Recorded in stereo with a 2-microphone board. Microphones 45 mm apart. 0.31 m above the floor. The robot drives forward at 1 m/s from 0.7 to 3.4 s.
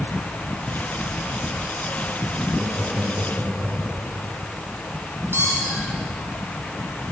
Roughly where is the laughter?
Right.